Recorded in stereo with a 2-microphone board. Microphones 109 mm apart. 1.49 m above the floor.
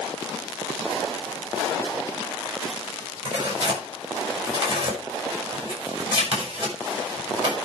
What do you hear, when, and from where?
3.2 s tearing paper: 55° right (ahead or behind), 7 m